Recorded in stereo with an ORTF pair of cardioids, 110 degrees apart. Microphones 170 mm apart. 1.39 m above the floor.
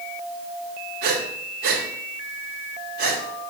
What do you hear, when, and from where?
1.0 s breathing: 65° right, 2.5 m